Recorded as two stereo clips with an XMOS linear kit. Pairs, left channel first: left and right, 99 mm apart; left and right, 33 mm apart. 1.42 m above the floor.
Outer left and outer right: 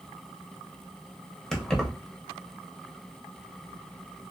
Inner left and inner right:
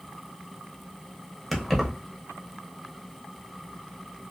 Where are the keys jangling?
5° left (ahead or behind), 0.7 m.